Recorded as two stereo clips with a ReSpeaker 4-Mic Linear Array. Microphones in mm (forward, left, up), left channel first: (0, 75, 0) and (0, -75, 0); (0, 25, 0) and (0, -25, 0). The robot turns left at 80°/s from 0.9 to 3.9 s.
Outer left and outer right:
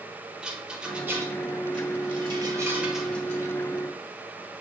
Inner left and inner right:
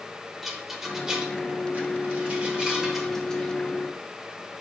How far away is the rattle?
About 1.2 m.